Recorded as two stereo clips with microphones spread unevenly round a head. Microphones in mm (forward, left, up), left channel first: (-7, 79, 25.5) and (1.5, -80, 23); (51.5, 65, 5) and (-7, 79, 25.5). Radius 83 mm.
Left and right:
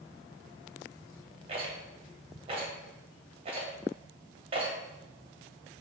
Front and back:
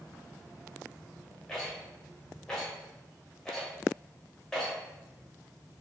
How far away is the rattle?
About 0.8 m.